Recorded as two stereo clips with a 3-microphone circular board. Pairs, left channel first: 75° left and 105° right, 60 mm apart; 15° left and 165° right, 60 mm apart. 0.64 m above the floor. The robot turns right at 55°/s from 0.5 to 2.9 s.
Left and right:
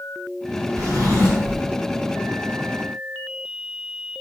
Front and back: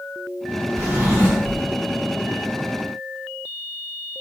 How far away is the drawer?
About 0.9 m.